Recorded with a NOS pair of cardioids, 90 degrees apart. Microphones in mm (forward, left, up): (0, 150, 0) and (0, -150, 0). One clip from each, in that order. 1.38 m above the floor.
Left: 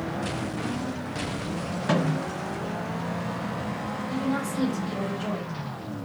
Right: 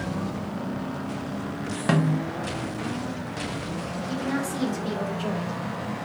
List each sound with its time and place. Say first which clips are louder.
1.9 s a snare drum: right 1 dB; 35° right, 0.9 m
4.1 s a woman speaking: right 1 dB; 50° right, 1.3 m